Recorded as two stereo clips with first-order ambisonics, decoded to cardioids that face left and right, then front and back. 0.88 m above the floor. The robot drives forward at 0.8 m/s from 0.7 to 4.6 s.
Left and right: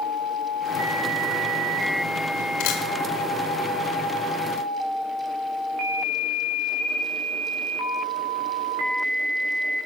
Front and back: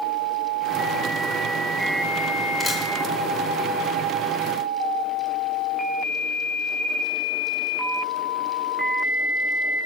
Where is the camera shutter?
85° left, 1.9 m; by 2.8 s 90° left, 1.9 m.